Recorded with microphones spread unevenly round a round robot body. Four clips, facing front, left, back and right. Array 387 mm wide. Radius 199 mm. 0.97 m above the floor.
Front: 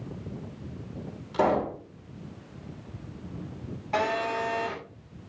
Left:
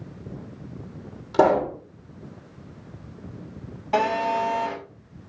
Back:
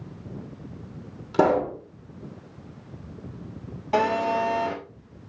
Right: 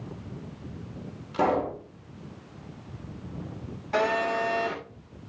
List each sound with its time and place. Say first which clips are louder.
1.3 s a pop: left 6 dB, back 4 dB; 135° left, 4 m
3.9 s a phone buzzing: left 3 dB, back 5 dB; 165° left, 8.5 m